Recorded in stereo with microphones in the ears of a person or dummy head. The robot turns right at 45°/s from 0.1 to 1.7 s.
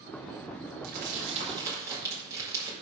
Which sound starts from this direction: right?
Crumpling, at 0.8 s.